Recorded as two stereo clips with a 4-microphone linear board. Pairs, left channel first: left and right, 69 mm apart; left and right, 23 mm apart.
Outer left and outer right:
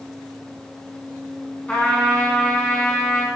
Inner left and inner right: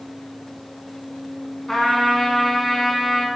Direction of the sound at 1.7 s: 20° left (ahead or behind).